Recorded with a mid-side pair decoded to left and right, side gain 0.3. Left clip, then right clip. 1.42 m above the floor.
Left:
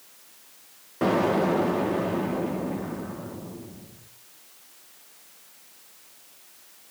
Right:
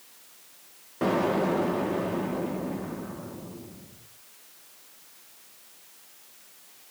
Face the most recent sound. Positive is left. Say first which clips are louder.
# left 2 dB
turn(degrees=20)